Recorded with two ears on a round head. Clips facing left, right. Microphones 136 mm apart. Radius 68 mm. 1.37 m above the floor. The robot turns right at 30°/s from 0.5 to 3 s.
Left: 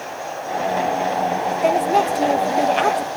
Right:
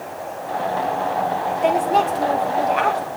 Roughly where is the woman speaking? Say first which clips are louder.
Even; ahead.